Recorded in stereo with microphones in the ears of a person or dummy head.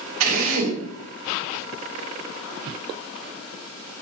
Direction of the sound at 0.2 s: 85° right.